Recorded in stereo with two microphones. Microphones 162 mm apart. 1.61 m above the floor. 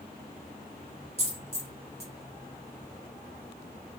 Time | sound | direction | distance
1.2 | a dropped coin | 15° left (ahead or behind) | 1.1 m